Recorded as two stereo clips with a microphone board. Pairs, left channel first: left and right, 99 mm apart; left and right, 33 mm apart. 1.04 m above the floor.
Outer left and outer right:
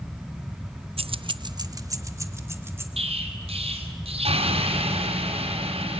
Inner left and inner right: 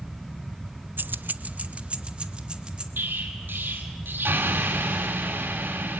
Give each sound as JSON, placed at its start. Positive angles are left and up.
{"t": 1.0, "sound": "keys jangling", "side_deg": -75, "distance_m": 0.5}
{"t": 3.0, "sound": "an explosion", "side_deg": -90, "distance_m": 5.0}